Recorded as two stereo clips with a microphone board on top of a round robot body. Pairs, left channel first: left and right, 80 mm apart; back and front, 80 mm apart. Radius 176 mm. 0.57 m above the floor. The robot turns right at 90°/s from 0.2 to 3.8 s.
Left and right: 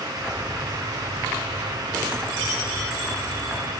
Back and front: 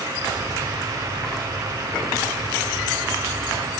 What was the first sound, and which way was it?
Only background noise.